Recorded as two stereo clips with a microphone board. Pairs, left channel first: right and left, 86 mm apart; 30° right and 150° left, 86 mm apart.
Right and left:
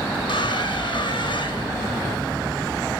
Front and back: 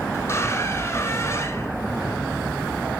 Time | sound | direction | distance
0.1 | a squeak | 90° right | 0.8 m